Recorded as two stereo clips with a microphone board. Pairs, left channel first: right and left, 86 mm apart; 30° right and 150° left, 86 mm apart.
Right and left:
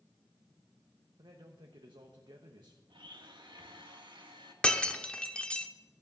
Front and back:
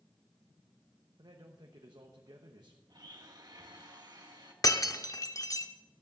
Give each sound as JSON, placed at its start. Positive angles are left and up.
{"t": 1.2, "sound": "a man speaking", "azimuth_deg": 115, "distance_m": 1.2}
{"t": 2.9, "sound": "a blender", "azimuth_deg": 110, "distance_m": 1.6}
{"t": 4.6, "sound": "breaking glass", "azimuth_deg": -20, "distance_m": 0.8}